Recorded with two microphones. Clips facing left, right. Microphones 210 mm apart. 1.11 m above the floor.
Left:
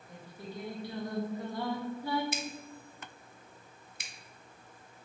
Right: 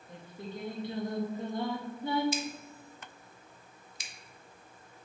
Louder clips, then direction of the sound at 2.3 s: Right 3 dB; 55° left (ahead or behind).